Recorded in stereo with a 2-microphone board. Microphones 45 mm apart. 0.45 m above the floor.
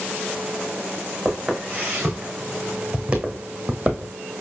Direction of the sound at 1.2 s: 15° right (ahead or behind).